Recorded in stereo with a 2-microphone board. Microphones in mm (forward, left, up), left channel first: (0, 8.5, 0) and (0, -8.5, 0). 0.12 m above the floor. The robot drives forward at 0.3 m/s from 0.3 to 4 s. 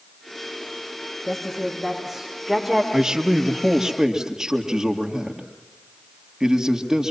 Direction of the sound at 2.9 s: 35° right (ahead or behind).